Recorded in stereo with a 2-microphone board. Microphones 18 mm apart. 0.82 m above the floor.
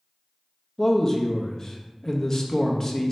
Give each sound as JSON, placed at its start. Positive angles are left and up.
{"t": 0.8, "sound": "a man speaking", "side_deg": 25, "distance_m": 0.6}